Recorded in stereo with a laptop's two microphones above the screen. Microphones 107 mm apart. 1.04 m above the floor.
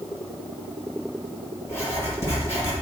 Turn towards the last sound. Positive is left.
turn(degrees=25)  # may be behind; listen again after turning